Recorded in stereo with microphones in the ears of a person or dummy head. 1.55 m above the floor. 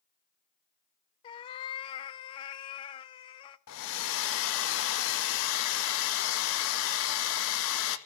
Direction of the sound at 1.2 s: 30° left (ahead or behind).